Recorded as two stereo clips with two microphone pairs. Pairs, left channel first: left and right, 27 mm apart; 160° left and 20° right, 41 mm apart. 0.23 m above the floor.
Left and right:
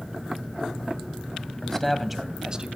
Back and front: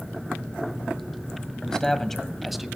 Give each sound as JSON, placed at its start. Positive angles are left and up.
{"t": 1.6, "sound": "a man speaking", "azimuth_deg": 115, "distance_m": 1.3}